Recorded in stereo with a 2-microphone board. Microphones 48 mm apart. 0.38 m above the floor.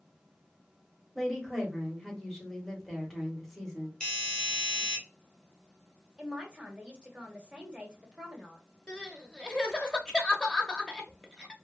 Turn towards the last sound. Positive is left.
turn(degrees=15)  # may be behind; listen again after turning